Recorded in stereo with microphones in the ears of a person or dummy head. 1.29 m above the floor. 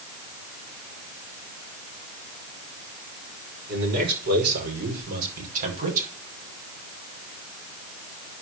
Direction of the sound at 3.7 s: 60° right (ahead or behind).